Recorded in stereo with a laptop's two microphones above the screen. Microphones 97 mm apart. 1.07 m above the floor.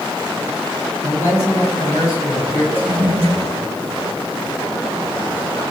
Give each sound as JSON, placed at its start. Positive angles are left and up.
{"t": 1.0, "sound": "a man speaking", "side_deg": 30, "distance_m": 6.5}
{"t": 2.7, "sound": "a toilet flushing", "side_deg": -20, "distance_m": 6.0}